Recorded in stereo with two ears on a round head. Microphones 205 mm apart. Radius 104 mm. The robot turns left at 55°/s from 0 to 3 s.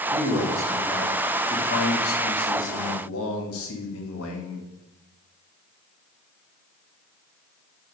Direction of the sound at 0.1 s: 140° right.